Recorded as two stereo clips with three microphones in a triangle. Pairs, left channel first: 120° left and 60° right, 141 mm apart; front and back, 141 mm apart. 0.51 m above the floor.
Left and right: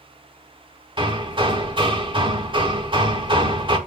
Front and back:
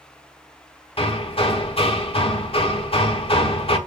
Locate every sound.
1.0 s hammering: 20° right, 1.2 m